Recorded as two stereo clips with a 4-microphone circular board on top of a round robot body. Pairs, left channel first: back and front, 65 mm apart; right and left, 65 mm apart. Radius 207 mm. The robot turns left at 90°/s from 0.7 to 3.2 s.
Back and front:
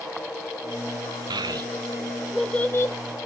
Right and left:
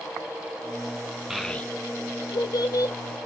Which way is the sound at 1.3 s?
5° left.